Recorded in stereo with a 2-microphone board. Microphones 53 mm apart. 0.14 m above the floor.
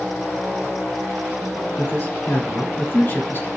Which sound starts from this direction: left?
A man speaking, at 1.8 s.